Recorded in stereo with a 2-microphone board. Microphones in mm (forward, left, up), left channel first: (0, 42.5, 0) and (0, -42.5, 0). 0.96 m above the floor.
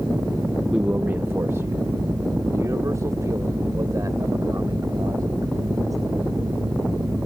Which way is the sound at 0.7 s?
10° right (ahead or behind).